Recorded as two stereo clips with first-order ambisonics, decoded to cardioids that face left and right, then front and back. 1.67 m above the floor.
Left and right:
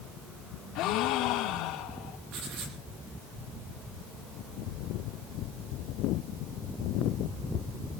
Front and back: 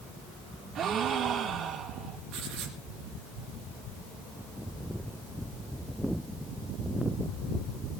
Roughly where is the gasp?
Behind left.